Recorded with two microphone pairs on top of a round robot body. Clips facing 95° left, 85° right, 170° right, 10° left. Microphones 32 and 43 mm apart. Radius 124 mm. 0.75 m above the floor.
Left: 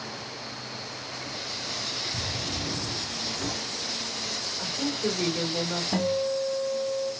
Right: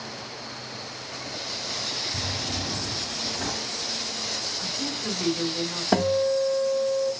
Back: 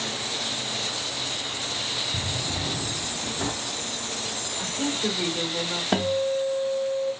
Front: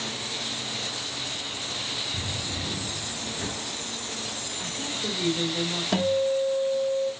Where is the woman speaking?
165° left, 3.5 m.